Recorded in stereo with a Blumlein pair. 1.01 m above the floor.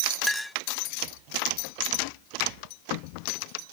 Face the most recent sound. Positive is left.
turn(degrees=0)